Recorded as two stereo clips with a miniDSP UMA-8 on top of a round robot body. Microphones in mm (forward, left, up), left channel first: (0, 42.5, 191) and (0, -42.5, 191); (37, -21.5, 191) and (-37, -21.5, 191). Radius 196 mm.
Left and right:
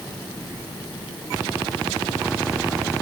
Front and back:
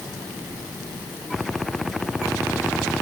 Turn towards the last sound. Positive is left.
No sound to turn to.